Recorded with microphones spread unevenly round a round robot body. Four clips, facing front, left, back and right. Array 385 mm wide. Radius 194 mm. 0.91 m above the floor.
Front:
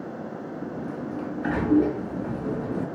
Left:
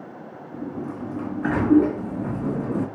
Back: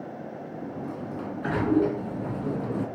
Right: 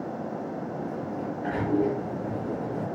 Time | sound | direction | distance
0.5 | a sliding door | 100° left | 2 m